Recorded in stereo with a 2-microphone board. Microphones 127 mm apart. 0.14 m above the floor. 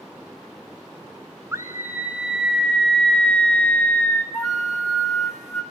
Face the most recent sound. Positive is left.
turn(degrees=0)  # may be behind; listen again after turning